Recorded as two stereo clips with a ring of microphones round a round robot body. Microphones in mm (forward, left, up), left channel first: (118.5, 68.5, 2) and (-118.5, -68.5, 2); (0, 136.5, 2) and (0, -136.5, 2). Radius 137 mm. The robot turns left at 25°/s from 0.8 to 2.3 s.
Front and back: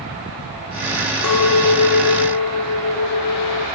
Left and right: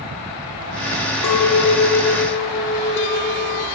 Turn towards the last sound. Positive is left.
turn(degrees=35)